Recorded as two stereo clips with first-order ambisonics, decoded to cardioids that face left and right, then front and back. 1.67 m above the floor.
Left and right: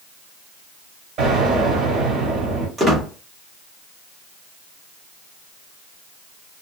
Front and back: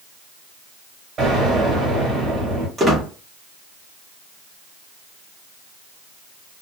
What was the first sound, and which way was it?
An explosion, 125° right.